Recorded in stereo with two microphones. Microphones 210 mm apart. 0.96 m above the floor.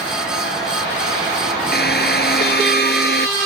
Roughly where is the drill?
Left.